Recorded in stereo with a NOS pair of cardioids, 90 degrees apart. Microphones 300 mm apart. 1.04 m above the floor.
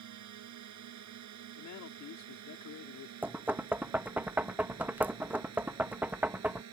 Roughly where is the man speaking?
Left.